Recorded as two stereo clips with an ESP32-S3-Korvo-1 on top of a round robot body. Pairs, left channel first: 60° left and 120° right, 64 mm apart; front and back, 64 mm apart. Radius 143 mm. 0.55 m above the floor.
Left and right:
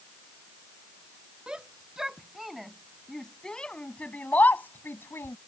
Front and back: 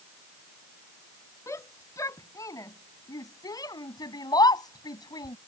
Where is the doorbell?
I don't hear a doorbell.